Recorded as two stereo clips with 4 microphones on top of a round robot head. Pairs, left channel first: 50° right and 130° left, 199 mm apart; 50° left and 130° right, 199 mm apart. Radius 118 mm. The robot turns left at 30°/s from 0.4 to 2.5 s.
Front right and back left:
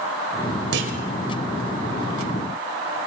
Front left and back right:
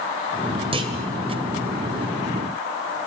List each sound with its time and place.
0.7 s a clunk: 165° left, 1.9 m; by 1.0 s 160° left, 1.9 m